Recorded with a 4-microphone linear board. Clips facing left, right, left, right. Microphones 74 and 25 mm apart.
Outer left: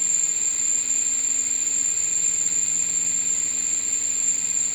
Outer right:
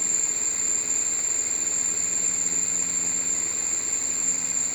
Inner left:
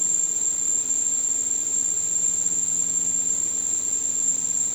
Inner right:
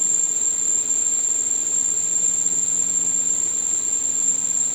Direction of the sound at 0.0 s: 30° left (ahead or behind).